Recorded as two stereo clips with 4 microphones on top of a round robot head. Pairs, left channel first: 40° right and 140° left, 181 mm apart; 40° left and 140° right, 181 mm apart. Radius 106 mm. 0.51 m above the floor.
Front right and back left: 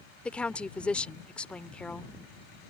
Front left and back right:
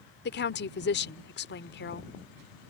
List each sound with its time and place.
0.2 s a woman speaking: 40° left